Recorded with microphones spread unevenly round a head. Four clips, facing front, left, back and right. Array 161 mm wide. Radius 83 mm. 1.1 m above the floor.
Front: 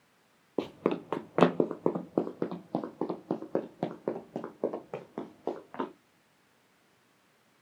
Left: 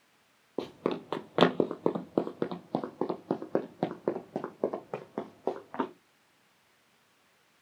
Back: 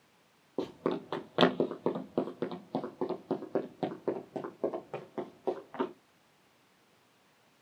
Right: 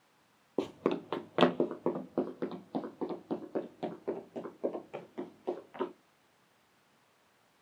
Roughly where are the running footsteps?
Ahead.